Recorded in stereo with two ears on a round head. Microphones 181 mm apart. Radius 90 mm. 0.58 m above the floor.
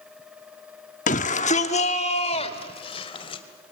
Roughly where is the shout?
Left.